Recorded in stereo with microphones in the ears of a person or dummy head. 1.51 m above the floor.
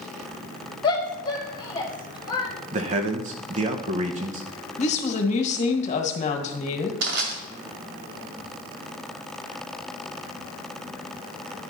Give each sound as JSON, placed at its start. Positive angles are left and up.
{"t": 0.8, "sound": "a shout", "side_deg": 25, "distance_m": 1.7}
{"t": 2.7, "sound": "a man speaking", "side_deg": -35, "distance_m": 1.0}
{"t": 4.8, "sound": "a woman speaking", "side_deg": 40, "distance_m": 1.5}
{"t": 7.0, "sound": "crushing", "side_deg": -65, "distance_m": 1.9}